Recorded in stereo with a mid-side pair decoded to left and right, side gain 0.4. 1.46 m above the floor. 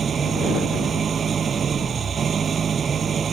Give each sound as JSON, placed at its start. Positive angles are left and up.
{"t": 0.0, "sound": "an engine running", "azimuth_deg": -50}